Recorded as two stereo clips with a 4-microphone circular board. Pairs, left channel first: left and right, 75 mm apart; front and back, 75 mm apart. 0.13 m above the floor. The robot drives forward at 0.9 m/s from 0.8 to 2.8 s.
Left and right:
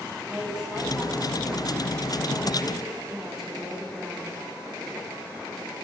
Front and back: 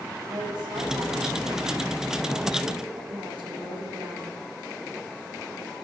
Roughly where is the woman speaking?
Behind.